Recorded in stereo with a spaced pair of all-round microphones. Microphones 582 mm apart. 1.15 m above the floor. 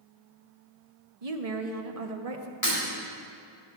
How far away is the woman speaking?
About 1.1 m.